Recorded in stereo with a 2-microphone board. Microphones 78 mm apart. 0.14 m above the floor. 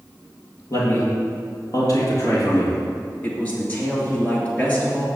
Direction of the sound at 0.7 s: 50° left (ahead or behind).